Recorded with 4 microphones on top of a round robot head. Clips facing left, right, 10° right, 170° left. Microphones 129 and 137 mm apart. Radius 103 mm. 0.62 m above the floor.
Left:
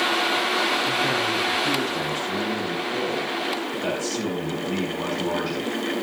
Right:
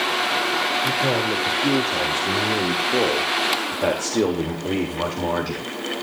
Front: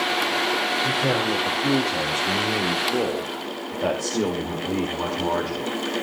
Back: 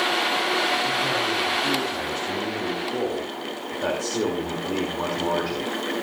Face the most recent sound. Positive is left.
turn(degrees=-110)